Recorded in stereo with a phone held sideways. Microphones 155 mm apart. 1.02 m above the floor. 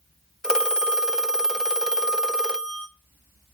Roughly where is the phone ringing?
Centre.